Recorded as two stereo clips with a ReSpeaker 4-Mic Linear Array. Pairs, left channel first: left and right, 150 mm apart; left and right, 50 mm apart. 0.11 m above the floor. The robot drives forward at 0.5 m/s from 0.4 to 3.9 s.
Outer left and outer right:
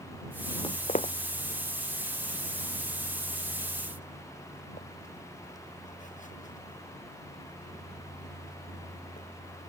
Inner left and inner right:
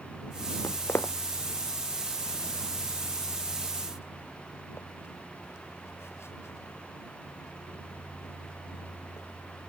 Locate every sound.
0.6 s footsteps: 35° left (ahead or behind); by 9.3 s 60° left (ahead or behind)